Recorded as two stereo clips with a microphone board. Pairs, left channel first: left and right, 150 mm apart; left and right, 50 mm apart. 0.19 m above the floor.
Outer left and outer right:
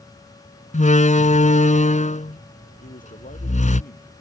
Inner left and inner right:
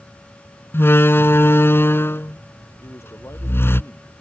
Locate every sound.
0.7 s a door slam: 55° left (ahead or behind)
2.8 s a man speaking: 70° left (ahead or behind)